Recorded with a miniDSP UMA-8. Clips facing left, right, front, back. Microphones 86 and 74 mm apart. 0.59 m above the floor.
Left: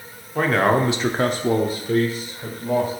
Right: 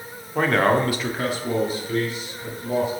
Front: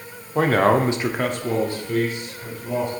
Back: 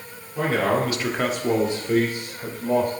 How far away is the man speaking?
About 1.2 m.